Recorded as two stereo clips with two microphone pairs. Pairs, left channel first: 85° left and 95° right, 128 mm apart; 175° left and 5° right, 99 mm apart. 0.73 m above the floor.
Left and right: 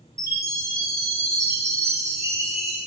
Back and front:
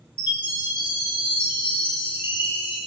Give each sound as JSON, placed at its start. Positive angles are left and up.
{"t": 0.2, "sound": "a chime", "azimuth_deg": -160, "distance_m": 2.5}